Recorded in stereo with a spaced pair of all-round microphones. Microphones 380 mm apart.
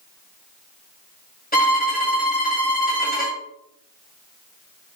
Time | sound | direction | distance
1.5 | a violin | 25° left (ahead or behind) | 1.6 m